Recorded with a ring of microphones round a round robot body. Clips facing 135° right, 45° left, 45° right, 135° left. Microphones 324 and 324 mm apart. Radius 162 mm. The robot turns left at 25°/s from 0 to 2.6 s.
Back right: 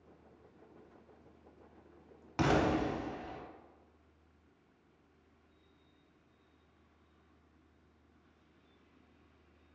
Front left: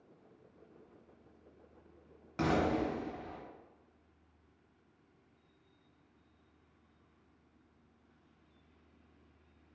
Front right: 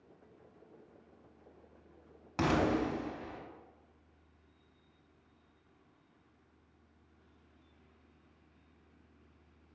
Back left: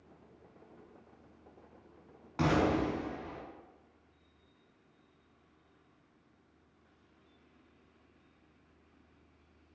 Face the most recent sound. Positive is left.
turn(degrees=-70)